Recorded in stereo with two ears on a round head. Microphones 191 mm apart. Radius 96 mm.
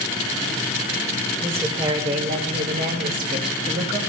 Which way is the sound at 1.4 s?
10° right (ahead or behind).